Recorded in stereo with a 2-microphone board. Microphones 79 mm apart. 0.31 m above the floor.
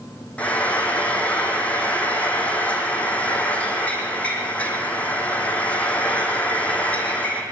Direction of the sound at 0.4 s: 15° left (ahead or behind).